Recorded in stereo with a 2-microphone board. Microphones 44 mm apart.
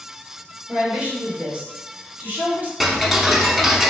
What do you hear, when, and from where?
0.7 s a woman speaking: 25° right (ahead or behind), 1.7 m; by 2.7 s 40° right (ahead or behind), 3.5 m
2.8 s ticking: 5° right (ahead or behind), 0.5 m